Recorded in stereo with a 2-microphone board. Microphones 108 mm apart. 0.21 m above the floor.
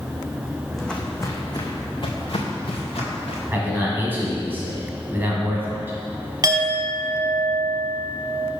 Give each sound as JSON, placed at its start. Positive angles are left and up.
{"t": 0.7, "sound": "footsteps", "side_deg": 0, "distance_m": 0.9}
{"t": 3.5, "sound": "a man speaking", "side_deg": -20, "distance_m": 1.2}
{"t": 6.4, "sound": "a clink", "side_deg": -40, "distance_m": 0.7}